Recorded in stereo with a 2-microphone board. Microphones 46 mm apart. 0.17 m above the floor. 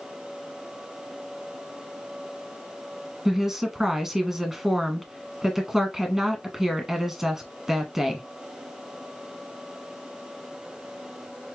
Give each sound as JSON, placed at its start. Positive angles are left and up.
{"t": 3.2, "sound": "a woman speaking", "side_deg": -10, "distance_m": 1.2}